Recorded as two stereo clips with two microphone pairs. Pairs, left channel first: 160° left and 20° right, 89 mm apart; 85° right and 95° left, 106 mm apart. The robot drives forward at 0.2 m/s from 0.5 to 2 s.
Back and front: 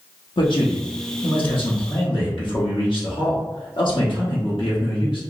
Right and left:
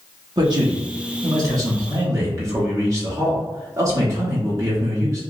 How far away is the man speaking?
About 0.7 m.